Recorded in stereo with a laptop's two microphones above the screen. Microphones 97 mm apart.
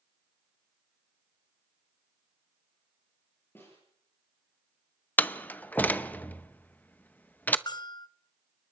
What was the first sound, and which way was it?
A snare drum, 25° left (ahead or behind).